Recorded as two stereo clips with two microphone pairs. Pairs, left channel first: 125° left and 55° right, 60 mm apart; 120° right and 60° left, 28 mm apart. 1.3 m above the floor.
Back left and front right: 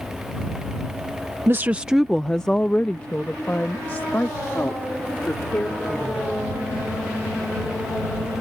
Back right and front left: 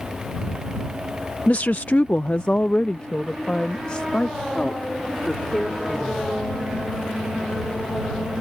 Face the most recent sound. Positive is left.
turn(degrees=175)